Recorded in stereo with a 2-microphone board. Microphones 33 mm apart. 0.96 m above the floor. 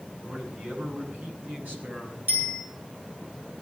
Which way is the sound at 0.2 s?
60° right (ahead or behind).